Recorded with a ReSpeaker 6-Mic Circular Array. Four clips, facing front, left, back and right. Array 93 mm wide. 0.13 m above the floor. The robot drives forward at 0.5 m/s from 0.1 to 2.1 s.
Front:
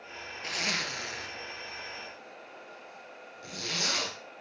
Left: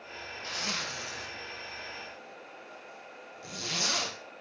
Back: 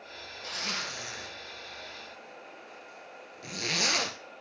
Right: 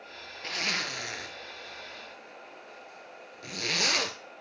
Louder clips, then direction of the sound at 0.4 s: Right 3 dB, front 2 dB; 45° right.